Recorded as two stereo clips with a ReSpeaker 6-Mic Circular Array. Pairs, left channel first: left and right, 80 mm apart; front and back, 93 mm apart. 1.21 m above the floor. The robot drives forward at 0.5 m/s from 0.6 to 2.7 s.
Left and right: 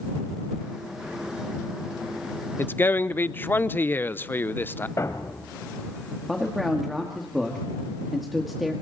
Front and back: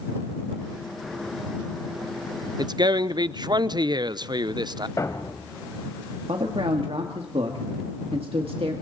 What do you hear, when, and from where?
2.6 s a man speaking: 145° left, 0.6 m; by 4.9 s 150° left, 0.6 m
5.0 s a thud: 45° left, 1.6 m
6.3 s a man speaking: straight behind, 1.7 m